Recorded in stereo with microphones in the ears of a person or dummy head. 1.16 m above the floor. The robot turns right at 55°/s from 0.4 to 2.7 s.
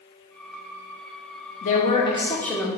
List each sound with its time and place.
1.6 s a woman speaking: 115° left, 0.6 m; by 2.7 s 175° left, 0.6 m